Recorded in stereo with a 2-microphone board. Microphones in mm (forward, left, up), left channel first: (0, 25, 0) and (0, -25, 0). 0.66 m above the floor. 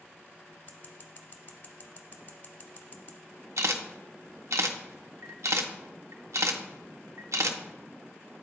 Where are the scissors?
45° left (ahead or behind), 1.0 m.